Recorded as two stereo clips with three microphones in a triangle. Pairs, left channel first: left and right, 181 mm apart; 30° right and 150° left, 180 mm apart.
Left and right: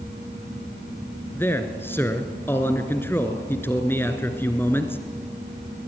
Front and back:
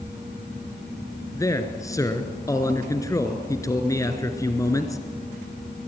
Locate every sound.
1.4 s a man speaking: 25° left, 1.9 m